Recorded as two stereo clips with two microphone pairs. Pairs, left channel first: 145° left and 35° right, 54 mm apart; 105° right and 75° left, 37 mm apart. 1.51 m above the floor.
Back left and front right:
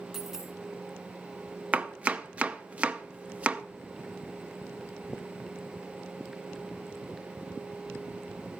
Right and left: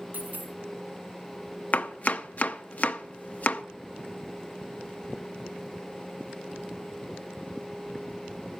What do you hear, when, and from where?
0.1 s a dropped coin: 50° left, 4.5 m
1.7 s chopping: 90° right, 0.6 m